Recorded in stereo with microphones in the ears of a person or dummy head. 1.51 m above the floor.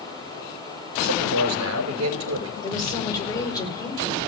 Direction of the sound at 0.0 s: 15° left (ahead or behind).